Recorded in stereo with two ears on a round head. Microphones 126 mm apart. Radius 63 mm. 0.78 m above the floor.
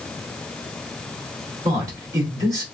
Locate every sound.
1.6 s a man speaking: 25° right (ahead or behind), 2 m